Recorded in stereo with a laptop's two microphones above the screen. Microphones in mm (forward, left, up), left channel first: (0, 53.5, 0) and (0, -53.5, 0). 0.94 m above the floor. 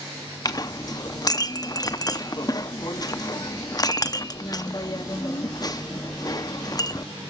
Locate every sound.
0.5 s a clink: 35° left (ahead or behind), 0.6 m